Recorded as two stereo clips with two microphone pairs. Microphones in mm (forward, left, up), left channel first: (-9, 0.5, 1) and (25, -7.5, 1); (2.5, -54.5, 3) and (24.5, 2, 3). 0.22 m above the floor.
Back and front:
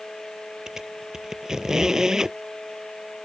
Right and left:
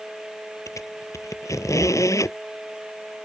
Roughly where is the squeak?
Right.